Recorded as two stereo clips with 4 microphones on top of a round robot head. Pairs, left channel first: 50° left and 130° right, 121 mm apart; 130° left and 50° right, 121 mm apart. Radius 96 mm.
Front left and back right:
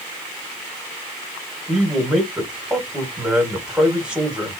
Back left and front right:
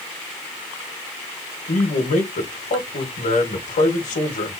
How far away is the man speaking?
About 1.6 m.